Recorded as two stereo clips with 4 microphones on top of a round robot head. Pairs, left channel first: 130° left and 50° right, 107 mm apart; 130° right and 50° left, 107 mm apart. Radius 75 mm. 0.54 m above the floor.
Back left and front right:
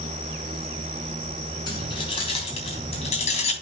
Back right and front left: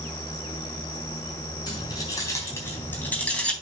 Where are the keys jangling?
Straight behind, 3.5 m; by 3.5 s 145° left, 3.5 m.